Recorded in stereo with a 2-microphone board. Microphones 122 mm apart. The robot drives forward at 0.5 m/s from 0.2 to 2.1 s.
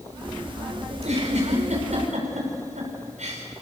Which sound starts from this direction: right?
A giggle, at 0.9 s.